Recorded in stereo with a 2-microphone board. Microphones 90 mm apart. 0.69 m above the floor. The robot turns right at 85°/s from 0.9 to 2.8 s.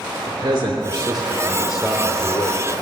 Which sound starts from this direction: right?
A man speaking, at 0.3 s.